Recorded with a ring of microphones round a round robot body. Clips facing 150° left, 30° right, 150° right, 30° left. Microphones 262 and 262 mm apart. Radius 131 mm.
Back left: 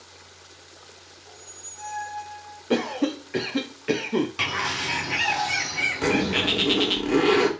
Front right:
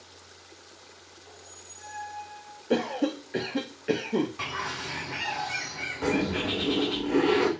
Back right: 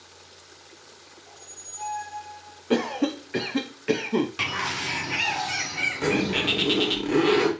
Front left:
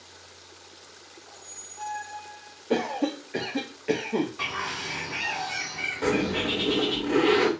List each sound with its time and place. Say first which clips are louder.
1.2 s a squeak: back left 2 dB, back right 1 dB; 75° left, 1.9 m
2.7 s a cough: back left 2 dB, back right 2 dB; 155° right, 0.6 m
4.4 s a bird: back left 5 dB, back right 3 dB; straight behind, 0.6 m
6.0 s a zipper: back left 3 dB, back right 1 dB; 160° left, 1.2 m